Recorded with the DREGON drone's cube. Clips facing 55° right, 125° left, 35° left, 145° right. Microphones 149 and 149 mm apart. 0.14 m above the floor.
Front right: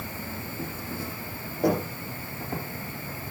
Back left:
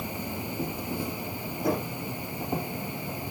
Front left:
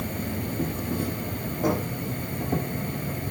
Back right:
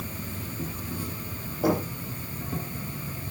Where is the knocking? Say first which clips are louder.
Front right 4 dB, back right 1 dB; 65° right, 7.5 m.